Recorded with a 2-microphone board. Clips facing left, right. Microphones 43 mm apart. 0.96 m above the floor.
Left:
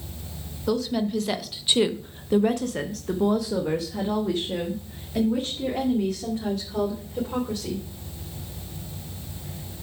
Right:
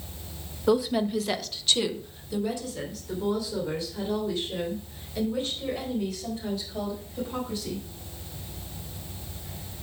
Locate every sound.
0.7 s a woman speaking: 15° right (ahead or behind), 1.0 m; by 7.8 s 65° left (ahead or behind), 3.5 m